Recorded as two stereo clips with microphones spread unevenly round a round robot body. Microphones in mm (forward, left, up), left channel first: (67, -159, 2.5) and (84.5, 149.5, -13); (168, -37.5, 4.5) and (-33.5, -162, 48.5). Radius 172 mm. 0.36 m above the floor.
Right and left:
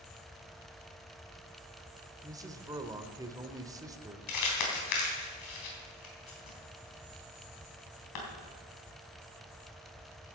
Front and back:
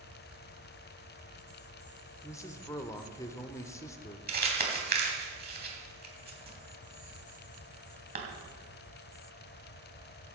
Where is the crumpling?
100° right, 3.5 m.